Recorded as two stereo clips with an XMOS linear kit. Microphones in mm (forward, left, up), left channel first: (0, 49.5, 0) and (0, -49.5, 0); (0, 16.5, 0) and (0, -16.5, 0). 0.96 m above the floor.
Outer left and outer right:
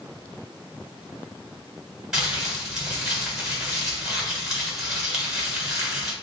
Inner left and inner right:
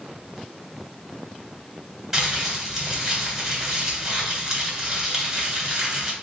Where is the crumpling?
5° right (ahead or behind), 1.5 m.